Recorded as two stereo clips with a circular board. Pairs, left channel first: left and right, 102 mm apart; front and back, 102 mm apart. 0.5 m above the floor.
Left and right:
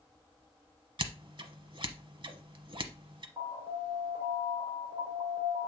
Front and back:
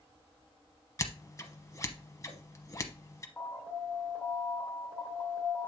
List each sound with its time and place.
1.0 s scissors: 55° right, 0.8 m
3.4 s an alarm: 70° right, 2.5 m